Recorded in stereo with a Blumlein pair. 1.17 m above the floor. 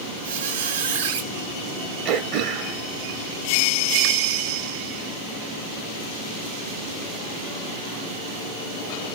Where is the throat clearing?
35° right, 1.1 m.